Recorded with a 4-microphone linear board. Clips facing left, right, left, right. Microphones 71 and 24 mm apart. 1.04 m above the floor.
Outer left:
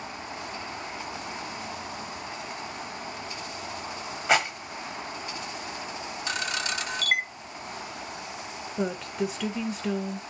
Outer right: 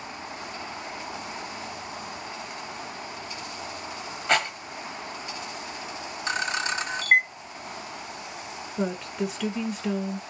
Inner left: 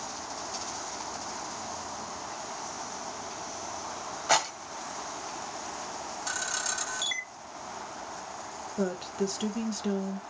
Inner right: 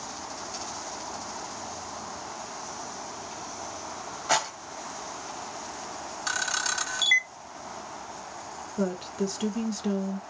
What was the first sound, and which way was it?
A rattle, 10° left (ahead or behind).